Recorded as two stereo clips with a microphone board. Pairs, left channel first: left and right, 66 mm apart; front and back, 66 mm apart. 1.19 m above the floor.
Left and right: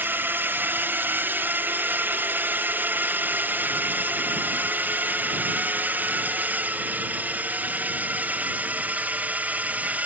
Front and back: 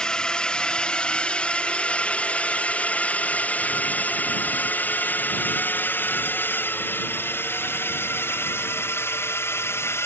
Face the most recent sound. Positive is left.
turn(degrees=-30)